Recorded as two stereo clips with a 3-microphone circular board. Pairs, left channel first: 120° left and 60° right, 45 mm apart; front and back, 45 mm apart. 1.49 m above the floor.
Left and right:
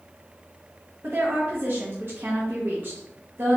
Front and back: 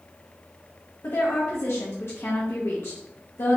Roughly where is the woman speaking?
Ahead.